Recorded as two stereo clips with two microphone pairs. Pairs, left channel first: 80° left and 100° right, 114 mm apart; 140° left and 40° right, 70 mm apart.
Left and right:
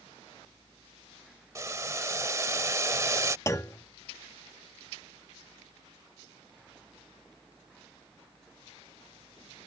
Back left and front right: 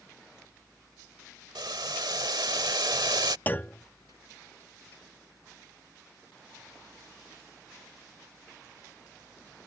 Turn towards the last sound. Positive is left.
turn(degrees=110)